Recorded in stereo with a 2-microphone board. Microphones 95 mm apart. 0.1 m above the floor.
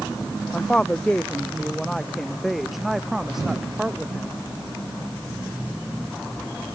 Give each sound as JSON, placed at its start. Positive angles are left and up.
{"t": 0.5, "sound": "a woman speaking", "side_deg": 10}